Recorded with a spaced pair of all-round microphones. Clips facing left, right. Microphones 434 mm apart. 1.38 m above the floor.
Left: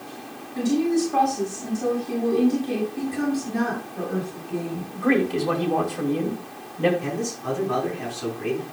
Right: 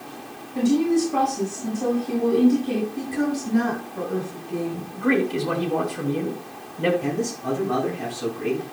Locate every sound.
0.6 s a woman speaking: 50° right (ahead or behind), 6 m
3.0 s a woman speaking: 30° right (ahead or behind), 6.5 m
4.9 s a man speaking: 20° right (ahead or behind), 3 m
7.0 s a man speaking: 55° right (ahead or behind), 6.5 m